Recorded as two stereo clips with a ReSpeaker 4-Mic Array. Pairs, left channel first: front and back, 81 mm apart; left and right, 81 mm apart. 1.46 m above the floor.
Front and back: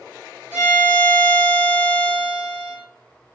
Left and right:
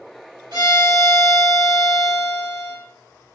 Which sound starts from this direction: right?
A violin, at 0.5 s.